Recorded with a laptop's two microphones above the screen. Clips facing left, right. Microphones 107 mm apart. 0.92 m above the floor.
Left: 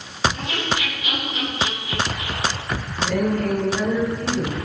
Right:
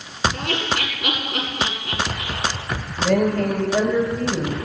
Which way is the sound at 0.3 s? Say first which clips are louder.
Right 1 dB; 70° right (ahead or behind).